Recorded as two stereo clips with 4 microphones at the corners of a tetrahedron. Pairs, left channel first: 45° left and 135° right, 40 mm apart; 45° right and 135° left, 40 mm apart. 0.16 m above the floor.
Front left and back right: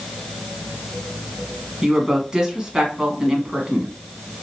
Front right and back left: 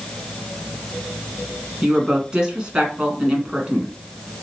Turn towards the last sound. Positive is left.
turn(degrees=175)